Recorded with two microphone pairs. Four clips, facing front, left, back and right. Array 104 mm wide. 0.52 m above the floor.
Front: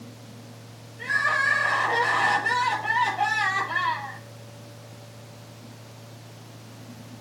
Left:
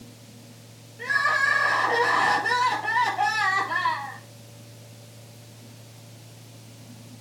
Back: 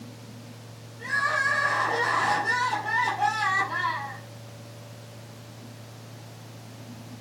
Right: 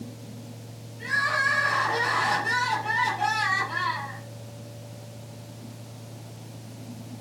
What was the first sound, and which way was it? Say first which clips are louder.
Crying: left 2 dB, front 2 dB; 50° left.